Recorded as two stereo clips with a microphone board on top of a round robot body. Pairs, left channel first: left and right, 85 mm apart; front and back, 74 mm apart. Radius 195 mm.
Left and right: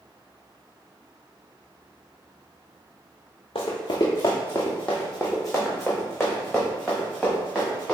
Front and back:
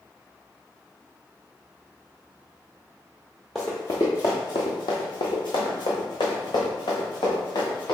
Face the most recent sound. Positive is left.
turn(degrees=-5)